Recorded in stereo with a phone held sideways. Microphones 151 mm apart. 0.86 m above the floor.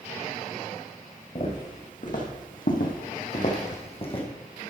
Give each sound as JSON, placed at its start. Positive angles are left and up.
{"t": 1.4, "sound": "footsteps", "side_deg": 50, "distance_m": 3.0}